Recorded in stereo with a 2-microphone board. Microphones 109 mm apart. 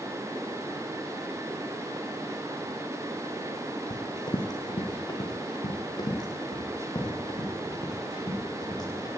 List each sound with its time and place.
3.9 s running footsteps: 40° left (ahead or behind), 2 m; by 9.1 s 35° left (ahead or behind), 7.5 m